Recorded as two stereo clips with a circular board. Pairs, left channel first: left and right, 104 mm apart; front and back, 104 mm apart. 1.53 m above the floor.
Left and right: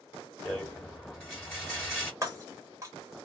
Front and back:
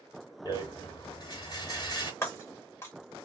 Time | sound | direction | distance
0.5 | a rattle | 5° left | 1.7 m
2.2 | breaking glass | 50° right | 1.2 m